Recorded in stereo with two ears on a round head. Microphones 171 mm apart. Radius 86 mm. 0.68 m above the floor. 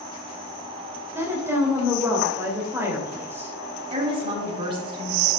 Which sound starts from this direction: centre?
A woman speaking, at 1.1 s.